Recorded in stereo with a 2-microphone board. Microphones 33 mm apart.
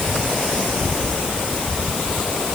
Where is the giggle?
I don't hear a giggle.